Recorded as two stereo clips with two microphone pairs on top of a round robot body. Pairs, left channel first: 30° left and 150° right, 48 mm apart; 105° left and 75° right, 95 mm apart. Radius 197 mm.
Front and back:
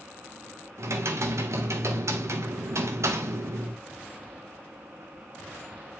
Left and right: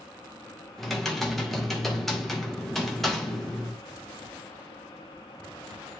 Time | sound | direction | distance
0.8 | typing on a keyboard | 165° right | 1.6 m